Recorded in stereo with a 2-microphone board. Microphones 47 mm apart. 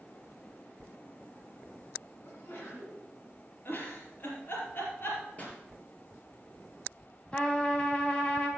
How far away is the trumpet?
About 2 m.